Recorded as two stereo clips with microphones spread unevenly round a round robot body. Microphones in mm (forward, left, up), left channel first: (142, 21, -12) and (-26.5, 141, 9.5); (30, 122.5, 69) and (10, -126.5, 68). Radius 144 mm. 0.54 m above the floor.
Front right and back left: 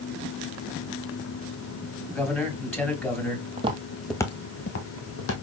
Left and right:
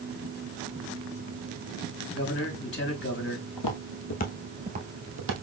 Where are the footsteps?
85° left, 1.2 m; by 5.3 s 60° right, 1.4 m.